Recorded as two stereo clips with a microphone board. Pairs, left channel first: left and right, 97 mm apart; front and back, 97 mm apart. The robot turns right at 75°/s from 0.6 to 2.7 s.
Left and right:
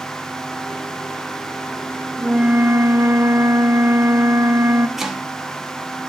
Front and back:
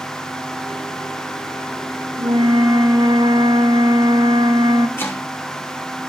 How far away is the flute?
About 0.8 m.